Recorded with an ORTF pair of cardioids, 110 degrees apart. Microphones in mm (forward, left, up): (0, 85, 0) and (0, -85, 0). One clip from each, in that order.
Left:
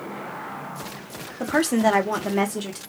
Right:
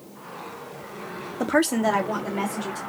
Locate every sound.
1.4 s a woman speaking: 15° right, 0.6 m; by 2.8 s 50° left, 1.3 m